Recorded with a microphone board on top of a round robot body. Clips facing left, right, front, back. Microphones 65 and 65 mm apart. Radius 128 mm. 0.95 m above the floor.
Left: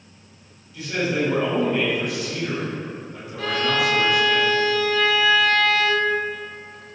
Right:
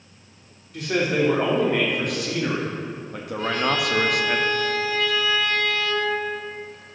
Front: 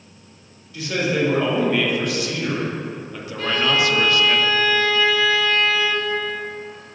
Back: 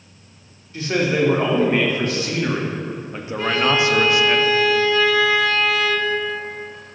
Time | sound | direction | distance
0.7 | a man speaking | 125° right | 2.5 m
3.4 | a violin | 105° left | 0.6 m